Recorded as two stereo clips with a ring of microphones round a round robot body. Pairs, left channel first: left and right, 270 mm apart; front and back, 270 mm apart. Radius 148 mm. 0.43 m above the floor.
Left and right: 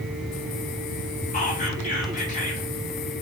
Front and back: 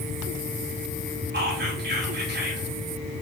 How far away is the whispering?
About 1.8 m.